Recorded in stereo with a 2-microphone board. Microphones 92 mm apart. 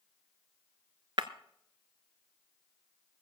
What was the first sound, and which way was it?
Breaking glass, 65° right (ahead or behind).